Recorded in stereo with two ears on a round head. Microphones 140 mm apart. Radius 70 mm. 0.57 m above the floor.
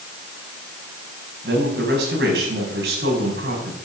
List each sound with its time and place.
1.4 s a man speaking: 75° right (ahead or behind), 5 m